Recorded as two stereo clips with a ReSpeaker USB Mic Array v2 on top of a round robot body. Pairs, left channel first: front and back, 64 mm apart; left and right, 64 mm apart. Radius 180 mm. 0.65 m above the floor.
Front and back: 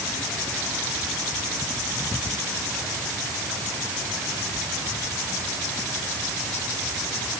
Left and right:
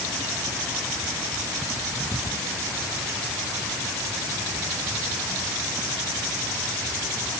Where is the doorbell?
No doorbell in this recording.